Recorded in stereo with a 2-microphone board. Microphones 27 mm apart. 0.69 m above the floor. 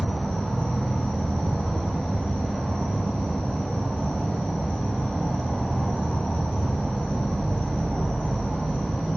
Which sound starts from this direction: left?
An insect, at 0.0 s.